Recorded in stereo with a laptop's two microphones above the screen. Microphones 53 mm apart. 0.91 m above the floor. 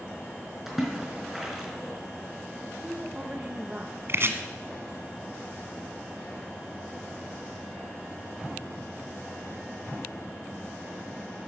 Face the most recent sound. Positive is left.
turn(degrees=-55)  # may be behind; listen again after turning